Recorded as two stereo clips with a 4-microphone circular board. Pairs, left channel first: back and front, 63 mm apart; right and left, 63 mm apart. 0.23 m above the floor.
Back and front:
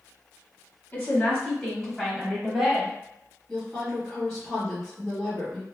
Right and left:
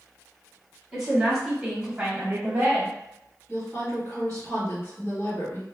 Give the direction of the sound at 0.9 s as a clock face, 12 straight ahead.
6 o'clock.